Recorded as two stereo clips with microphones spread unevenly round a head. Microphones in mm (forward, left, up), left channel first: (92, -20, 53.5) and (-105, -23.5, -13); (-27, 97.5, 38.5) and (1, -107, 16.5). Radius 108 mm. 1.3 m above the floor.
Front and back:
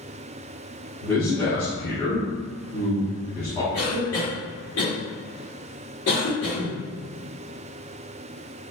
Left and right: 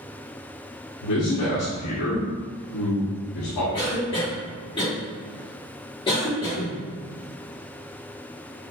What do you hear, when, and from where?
1.0 s a man speaking: 85° left, 1.2 m
3.7 s a cough: 30° left, 1.5 m